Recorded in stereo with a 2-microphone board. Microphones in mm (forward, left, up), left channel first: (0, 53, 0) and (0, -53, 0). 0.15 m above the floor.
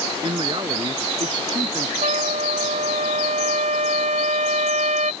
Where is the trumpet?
85° right.